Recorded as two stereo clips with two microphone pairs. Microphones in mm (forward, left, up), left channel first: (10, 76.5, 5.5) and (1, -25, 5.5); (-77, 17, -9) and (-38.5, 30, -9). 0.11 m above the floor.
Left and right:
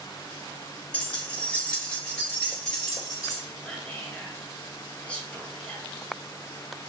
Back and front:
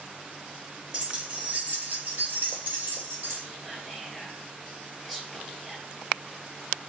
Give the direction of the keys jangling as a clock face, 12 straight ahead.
10 o'clock.